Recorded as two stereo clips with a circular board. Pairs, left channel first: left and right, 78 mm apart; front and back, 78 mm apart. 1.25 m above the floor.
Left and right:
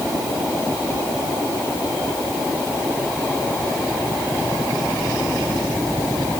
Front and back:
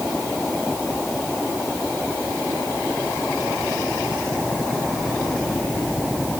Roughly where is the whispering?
No whispering in this recording.